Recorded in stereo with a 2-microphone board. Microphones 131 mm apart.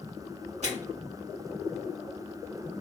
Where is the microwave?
55° right (ahead or behind), 1.6 m.